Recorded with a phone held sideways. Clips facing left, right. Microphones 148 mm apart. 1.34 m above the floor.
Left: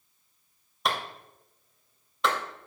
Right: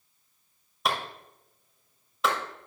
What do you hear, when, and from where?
0.8 s a clap: centre (ahead or behind), 2.5 m